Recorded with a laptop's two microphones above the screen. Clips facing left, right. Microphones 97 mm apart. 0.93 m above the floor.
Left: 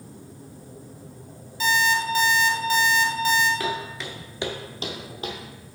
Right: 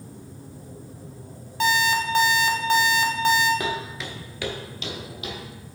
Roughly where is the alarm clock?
Right.